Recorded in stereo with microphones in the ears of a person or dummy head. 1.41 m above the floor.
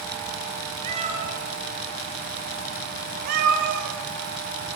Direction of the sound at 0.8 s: 35° right (ahead or behind).